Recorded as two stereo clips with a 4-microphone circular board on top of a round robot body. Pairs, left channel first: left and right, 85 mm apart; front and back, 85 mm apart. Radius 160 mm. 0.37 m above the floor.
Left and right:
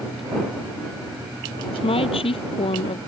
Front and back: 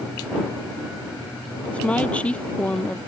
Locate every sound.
1.7 s a woman speaking: 75° left